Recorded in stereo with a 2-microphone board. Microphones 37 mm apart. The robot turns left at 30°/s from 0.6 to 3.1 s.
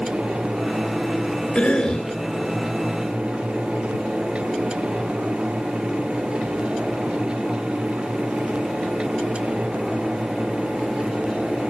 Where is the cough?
35° left (ahead or behind), 3.5 m; by 2.1 s 20° left (ahead or behind), 3.5 m.